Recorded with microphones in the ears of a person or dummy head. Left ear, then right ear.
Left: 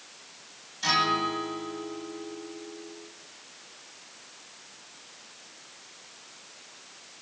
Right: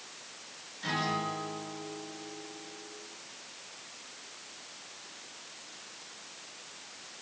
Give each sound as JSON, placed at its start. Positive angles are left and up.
{"t": 0.8, "sound": "a guitar", "side_deg": 45, "distance_m": 8.0}